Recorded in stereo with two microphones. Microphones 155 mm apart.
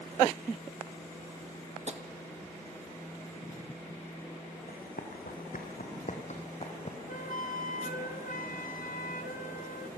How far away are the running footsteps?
About 3 m.